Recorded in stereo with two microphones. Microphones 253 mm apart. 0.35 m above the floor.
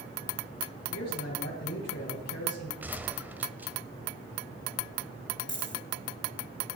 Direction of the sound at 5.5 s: 45° left (ahead or behind).